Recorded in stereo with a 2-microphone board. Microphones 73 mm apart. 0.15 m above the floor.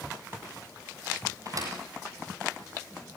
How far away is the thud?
About 9.5 m.